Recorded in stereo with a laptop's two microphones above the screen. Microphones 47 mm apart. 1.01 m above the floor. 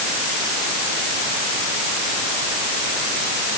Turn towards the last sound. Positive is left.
No sound to turn to.